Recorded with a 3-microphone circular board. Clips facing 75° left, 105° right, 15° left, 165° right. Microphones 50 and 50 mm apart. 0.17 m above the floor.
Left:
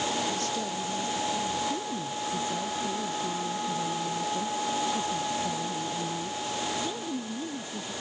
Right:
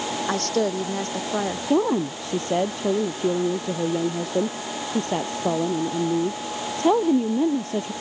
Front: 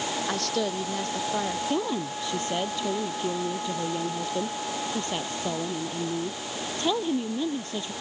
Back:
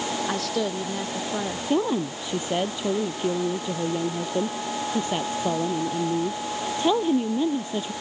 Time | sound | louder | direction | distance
0.3 | a woman speaking | right 8 dB, even | 80° right | ?
1.7 | a woman speaking | right 11 dB, back 4 dB | 90° right | ?